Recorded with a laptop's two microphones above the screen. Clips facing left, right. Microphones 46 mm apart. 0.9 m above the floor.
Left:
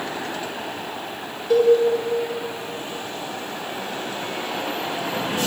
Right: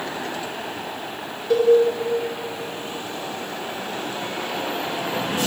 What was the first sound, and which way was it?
A cowbell, centre (ahead or behind).